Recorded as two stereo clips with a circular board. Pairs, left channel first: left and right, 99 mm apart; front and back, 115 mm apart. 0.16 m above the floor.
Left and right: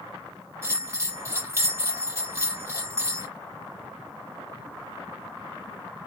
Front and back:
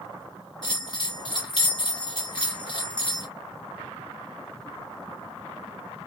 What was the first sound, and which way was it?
A bell, 35° right.